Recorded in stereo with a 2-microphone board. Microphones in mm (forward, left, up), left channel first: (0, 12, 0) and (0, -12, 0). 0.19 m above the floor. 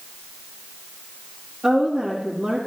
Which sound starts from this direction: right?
A woman speaking, at 1.6 s.